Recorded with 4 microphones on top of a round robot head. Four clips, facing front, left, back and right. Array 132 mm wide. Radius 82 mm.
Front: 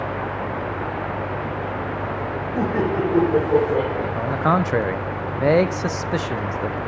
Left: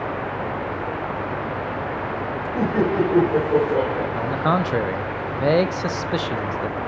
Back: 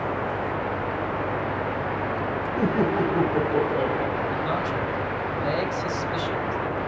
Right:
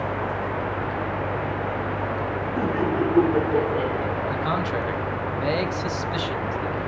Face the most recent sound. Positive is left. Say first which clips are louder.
# left 4 dB, front 5 dB
turn(degrees=30)